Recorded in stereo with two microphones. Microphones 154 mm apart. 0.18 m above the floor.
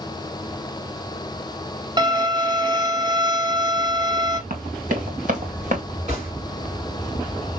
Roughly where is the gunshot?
Right.